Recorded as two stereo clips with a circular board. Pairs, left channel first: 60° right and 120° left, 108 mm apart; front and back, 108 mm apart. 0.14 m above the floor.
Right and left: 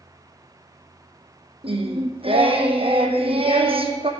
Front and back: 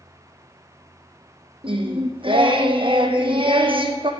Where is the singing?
145° left, 1.3 m.